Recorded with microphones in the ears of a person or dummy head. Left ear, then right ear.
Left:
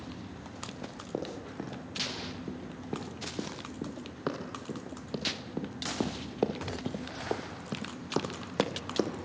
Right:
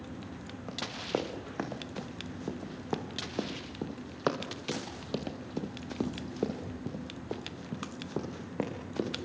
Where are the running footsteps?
50° right (ahead or behind), 5 m; by 9.1 s 65° left (ahead or behind), 3 m.